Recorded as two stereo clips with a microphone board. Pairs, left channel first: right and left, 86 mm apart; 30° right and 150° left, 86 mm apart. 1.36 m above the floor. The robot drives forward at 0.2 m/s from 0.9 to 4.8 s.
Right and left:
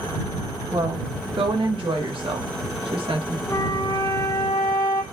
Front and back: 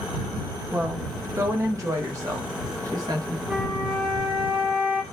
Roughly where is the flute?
Behind right.